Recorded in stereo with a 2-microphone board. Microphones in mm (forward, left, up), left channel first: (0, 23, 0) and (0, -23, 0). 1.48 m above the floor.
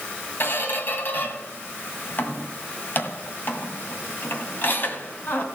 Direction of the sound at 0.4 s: 50° left (ahead or behind).